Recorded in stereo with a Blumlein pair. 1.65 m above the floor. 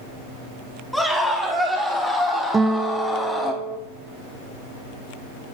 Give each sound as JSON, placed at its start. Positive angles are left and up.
{"t": 0.9, "sound": "a scream", "azimuth_deg": 5, "distance_m": 4.0}
{"t": 2.5, "sound": "a guitar", "azimuth_deg": -10, "distance_m": 0.8}